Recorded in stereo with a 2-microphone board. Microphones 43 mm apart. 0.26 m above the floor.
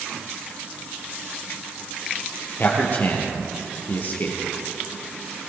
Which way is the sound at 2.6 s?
45° left (ahead or behind).